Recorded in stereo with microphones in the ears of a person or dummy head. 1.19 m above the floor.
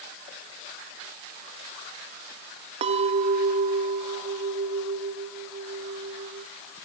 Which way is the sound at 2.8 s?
35° right (ahead or behind).